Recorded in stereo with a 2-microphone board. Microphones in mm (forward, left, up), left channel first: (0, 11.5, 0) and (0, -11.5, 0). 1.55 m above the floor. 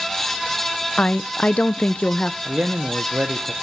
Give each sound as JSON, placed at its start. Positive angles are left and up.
{"t": 1.0, "sound": "a woman speaking", "side_deg": 70, "distance_m": 0.8}
{"t": 2.5, "sound": "a man speaking", "side_deg": -85, "distance_m": 1.2}